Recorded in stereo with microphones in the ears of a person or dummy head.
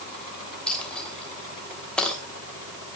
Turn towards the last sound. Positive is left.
turn(degrees=10)  # may be behind; listen again after turning